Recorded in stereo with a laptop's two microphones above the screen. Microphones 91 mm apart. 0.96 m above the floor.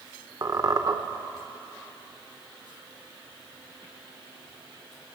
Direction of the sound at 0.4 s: 45° right (ahead or behind).